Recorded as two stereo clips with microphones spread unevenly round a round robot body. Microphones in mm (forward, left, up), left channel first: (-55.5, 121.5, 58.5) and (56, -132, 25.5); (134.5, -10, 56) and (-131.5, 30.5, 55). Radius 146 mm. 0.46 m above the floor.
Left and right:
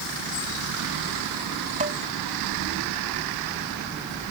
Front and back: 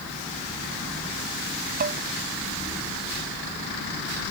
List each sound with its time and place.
1.8 s dishes clattering: 130° right